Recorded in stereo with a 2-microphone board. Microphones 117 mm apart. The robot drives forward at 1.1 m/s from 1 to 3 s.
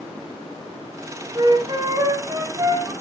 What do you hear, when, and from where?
1.4 s a flute: 40° right (ahead or behind), 3.5 m; by 2.9 s 30° right (ahead or behind), 4.5 m